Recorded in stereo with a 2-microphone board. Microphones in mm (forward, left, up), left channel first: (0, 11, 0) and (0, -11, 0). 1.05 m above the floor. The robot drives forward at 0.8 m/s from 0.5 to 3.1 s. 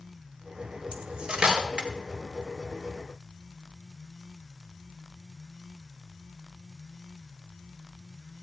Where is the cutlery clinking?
50° right (ahead or behind), 1.7 m; by 1.9 s 35° right (ahead or behind), 2.5 m.